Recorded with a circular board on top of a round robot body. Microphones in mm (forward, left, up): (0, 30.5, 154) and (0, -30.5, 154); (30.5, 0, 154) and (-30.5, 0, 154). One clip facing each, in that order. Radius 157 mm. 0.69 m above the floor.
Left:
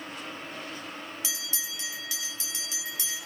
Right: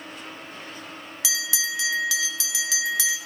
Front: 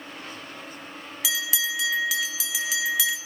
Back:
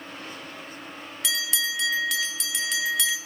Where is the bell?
90° right, 0.8 m.